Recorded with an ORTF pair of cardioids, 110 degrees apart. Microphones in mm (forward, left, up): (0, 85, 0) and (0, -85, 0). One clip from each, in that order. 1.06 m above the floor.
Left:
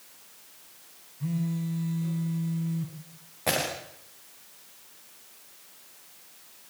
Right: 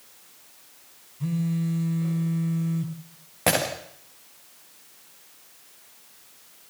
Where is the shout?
I don't hear a shout.